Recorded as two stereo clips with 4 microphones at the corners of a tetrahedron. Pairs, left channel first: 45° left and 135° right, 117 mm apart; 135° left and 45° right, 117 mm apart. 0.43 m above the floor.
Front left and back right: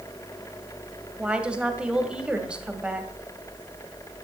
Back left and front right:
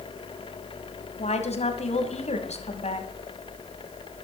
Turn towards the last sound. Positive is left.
turn(degrees=145)